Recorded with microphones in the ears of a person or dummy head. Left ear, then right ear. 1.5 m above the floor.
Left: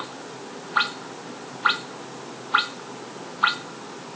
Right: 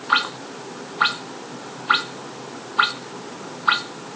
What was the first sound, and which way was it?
Only background noise.